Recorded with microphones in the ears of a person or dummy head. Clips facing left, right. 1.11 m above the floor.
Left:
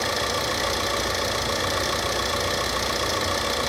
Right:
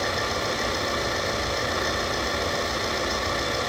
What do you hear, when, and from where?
0.0 s an engine running: 75° left (ahead or behind), 2 m